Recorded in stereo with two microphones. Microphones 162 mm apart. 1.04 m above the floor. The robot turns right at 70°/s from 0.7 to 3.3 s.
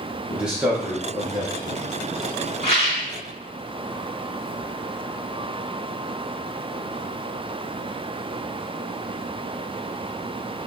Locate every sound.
0.3 s a man speaking: 10° right, 0.9 m; by 1.8 s 70° left, 0.9 m
2.6 s a rattle: 90° left, 2.0 m; by 3.1 s 120° left, 2.0 m